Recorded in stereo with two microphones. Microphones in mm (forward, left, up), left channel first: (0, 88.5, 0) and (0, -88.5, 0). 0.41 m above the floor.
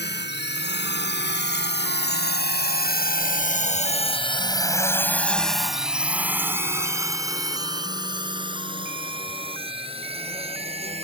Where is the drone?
70° left (ahead or behind); by 11.0 s 35° right (ahead or behind).